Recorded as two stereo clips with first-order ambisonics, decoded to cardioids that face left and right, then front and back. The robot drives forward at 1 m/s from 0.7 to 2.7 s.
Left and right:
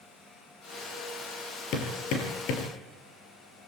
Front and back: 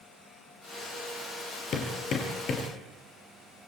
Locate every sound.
1.7 s hammering: 55° left, 6.5 m; by 2.7 s 60° left, 6 m